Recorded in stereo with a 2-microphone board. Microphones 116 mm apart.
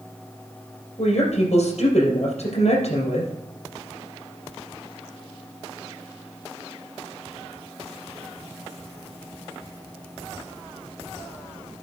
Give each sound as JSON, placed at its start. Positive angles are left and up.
{"t": 1.0, "sound": "a woman speaking", "side_deg": 70, "distance_m": 4.0}